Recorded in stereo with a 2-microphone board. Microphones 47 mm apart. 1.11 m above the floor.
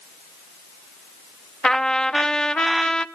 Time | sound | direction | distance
1.6 | a trumpet | 15° left (ahead or behind) | 0.8 m